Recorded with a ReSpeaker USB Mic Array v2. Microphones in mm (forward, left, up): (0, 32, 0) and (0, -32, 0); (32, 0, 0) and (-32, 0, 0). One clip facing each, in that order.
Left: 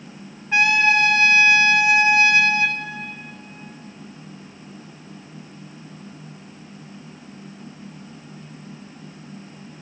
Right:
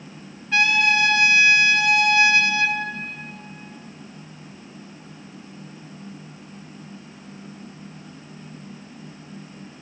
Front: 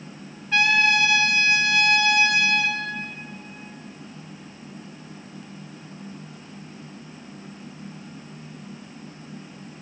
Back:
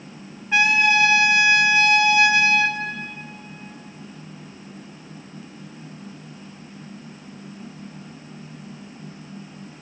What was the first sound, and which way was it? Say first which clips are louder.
A trumpet: left 2 dB, back 2 dB; 130° left.